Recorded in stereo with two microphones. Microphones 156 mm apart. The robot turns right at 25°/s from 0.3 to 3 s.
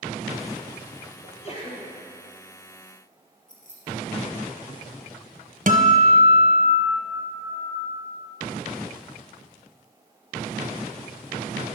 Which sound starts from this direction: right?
A guitar, at 5.7 s.